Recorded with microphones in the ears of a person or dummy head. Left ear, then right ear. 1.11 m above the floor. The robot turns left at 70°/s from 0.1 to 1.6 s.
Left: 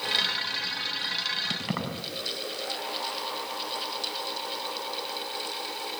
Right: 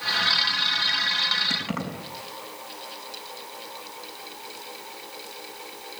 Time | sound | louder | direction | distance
1.5 | keys jangling | right 3 dB | 5° left (ahead or behind) | 5.5 m